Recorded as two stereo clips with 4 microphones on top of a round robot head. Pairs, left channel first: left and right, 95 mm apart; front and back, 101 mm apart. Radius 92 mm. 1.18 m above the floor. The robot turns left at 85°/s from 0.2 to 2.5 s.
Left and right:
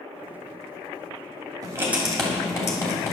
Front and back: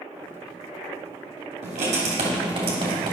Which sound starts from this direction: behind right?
Writing, at 1.6 s.